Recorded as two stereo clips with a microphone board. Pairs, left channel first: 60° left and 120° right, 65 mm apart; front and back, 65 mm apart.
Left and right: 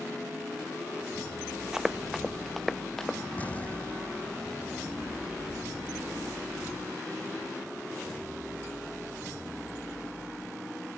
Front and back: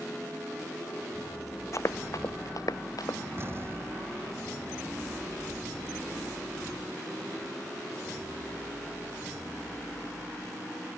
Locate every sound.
1.7 s running footsteps: 40° right; by 3.2 s 20° right
3.4 s an explosion: 130° left